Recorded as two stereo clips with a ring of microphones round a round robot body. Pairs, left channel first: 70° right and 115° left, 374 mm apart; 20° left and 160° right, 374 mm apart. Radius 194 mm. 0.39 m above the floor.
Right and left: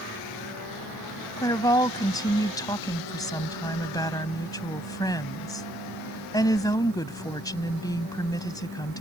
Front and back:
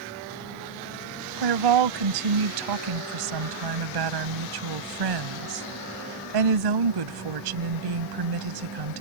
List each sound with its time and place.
1.4 s a woman speaking: 145° right